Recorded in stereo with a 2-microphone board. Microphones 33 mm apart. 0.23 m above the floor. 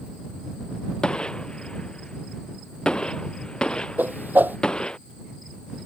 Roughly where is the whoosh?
Right.